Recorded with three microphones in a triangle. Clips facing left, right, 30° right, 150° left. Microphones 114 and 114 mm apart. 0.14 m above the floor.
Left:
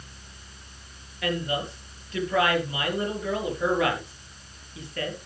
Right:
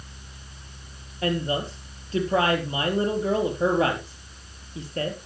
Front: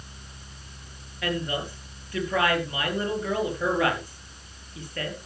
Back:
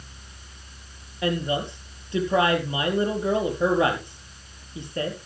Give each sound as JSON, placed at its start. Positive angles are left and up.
{"t": 1.2, "sound": "a woman speaking", "azimuth_deg": -145, "distance_m": 4.0}